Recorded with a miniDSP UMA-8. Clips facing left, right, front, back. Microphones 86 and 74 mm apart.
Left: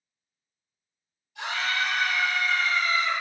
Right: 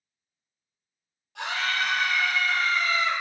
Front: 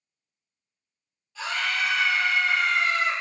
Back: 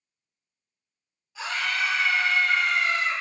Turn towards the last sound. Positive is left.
turn(degrees=-20)